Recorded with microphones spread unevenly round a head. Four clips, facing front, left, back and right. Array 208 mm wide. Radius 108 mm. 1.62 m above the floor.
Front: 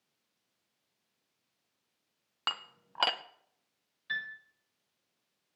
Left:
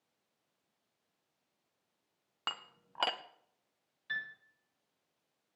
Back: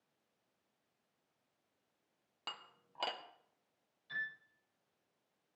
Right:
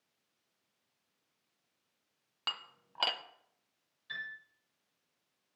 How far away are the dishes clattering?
About 0.6 m.